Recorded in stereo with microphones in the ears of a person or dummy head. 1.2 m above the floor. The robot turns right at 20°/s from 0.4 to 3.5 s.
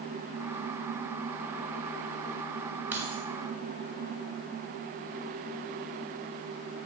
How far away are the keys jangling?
About 1.4 m.